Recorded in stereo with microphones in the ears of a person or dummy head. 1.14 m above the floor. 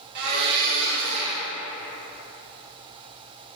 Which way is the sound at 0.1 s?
60° right (ahead or behind).